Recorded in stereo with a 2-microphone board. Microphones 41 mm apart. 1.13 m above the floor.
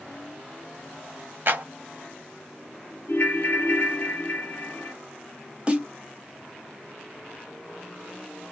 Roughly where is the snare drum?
Right.